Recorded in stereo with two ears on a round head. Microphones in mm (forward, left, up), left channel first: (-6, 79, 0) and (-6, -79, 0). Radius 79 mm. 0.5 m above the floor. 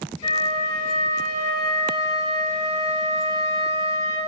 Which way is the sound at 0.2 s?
30° left (ahead or behind).